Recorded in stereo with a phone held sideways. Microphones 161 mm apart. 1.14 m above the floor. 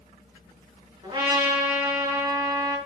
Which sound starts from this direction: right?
A trumpet, at 1.0 s.